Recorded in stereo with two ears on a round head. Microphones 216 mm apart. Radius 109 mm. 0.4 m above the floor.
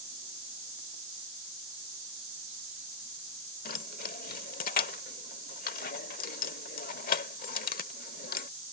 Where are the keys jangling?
40° left (ahead or behind).